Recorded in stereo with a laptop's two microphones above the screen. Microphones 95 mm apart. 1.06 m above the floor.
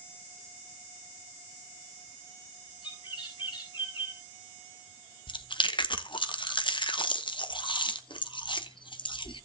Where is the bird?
55° left (ahead or behind), 5.5 m.